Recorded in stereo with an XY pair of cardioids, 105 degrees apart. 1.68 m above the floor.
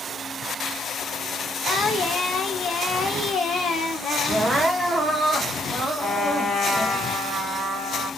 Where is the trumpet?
15° left, 1.5 m.